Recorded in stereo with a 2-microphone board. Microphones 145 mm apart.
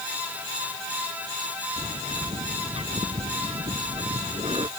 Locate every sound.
1.8 s a bird: 40° right (ahead or behind)